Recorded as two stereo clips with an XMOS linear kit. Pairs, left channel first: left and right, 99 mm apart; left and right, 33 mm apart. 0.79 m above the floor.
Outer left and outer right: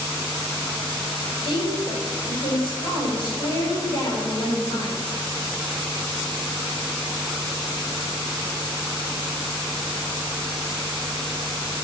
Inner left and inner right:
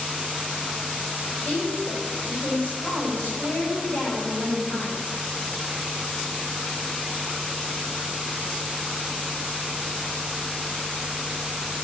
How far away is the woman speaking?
About 3 m.